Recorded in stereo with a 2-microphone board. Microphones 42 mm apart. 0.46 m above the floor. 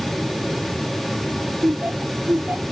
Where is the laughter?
45° right (ahead or behind).